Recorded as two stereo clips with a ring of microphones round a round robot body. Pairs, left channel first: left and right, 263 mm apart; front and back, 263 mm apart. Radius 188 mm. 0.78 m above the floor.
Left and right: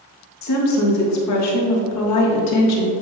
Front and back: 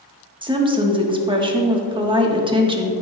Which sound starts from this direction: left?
A woman speaking, at 0.4 s.